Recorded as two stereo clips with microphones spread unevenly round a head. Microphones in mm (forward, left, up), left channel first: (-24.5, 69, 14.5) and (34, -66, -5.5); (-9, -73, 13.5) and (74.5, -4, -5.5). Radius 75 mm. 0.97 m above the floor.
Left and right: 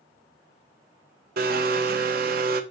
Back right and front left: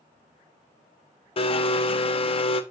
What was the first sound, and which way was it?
A blender, 100° right.